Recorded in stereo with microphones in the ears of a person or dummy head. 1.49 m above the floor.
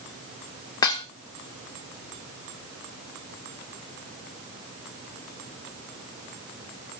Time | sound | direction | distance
0.8 | dishes clattering | 15° left (ahead or behind) | 0.6 m